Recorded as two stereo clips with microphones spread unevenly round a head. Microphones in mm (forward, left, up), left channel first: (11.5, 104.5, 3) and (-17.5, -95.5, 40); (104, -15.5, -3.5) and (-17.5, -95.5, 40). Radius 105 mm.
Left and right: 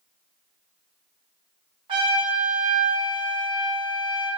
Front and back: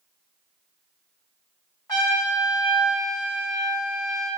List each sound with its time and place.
1.9 s a trumpet: 30° right, 3 m